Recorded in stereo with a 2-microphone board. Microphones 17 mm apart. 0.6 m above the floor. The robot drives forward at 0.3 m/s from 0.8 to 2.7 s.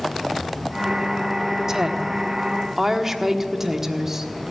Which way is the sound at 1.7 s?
30° right (ahead or behind).